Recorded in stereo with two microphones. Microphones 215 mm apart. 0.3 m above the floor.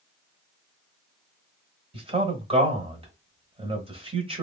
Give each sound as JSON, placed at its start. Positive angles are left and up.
{"t": 1.9, "sound": "a man speaking", "side_deg": -25, "distance_m": 1.2}